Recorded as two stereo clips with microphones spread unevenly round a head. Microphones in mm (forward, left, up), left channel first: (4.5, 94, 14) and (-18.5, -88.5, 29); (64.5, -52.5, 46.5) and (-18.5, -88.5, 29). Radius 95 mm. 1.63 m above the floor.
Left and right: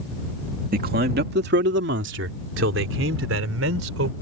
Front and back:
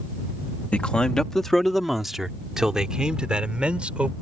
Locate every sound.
0.7 s a man speaking: 50° right; by 4.1 s 75° right